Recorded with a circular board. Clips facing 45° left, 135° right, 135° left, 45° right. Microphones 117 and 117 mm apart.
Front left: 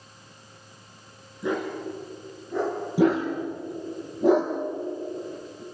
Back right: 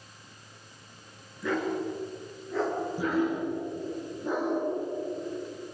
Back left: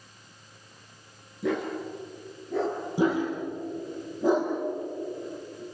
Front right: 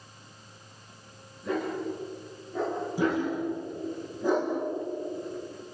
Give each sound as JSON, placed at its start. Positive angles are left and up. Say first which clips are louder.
{"t": 1.4, "sound": "a dog barking", "louder": "front left 1 dB, back left 1 dB", "azimuth_deg": 115, "distance_m": 4.5}
{"t": 3.0, "sound": "a dog barking", "louder": "front left 7 dB, back left 2 dB", "azimuth_deg": 65, "distance_m": 6.0}